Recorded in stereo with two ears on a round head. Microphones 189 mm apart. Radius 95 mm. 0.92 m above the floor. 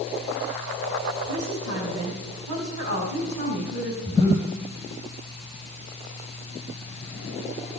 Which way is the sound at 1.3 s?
80° right.